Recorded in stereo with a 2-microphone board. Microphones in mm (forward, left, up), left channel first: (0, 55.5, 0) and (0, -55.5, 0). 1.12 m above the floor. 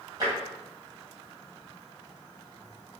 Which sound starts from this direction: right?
Tapping, at 0.2 s.